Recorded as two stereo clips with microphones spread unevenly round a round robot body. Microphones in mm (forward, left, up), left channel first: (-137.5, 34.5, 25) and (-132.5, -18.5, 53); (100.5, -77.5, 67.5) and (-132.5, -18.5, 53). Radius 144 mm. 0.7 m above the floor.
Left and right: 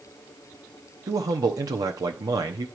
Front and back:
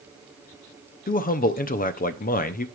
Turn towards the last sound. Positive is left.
turn(degrees=-65)